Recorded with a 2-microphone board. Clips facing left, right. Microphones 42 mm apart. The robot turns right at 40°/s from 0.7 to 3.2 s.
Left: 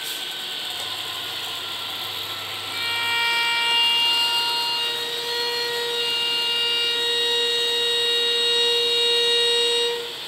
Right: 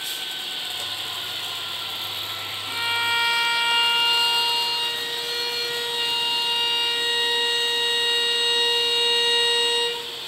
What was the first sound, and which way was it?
A violin, 20° right (ahead or behind).